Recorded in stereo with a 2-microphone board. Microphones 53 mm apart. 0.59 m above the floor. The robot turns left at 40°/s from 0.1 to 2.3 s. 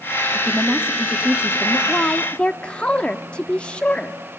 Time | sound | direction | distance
0.3 | a woman speaking | 10° right (ahead or behind) | 1.2 m
1.9 | a woman speaking | 30° left (ahead or behind) | 0.7 m